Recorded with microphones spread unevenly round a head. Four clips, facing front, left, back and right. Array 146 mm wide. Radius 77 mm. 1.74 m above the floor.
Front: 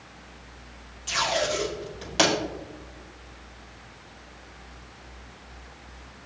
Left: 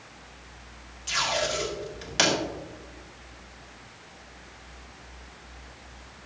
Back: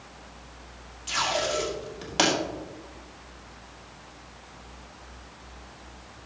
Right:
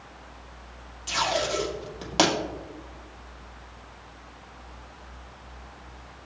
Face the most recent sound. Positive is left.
turn(degrees=-95)